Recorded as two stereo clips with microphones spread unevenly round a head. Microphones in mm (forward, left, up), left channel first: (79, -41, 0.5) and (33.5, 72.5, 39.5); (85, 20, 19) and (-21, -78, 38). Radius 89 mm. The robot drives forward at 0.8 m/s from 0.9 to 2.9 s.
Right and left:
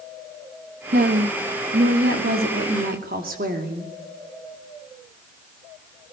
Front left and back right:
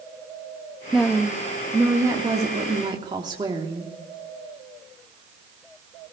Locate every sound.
0.9 s a woman speaking: 130° left, 1.6 m; by 3.9 s 155° left, 3 m